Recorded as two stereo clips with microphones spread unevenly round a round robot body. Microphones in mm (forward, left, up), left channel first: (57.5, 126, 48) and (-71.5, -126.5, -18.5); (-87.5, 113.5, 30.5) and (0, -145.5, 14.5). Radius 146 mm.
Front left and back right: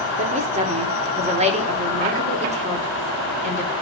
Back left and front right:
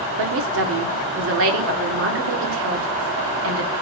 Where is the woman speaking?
70° right, 1.6 m.